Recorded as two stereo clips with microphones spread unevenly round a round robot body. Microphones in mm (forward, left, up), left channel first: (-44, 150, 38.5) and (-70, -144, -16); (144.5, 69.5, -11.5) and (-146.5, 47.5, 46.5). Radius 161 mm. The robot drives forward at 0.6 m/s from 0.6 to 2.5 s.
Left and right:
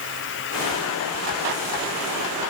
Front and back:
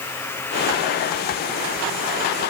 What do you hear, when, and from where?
Only background noise.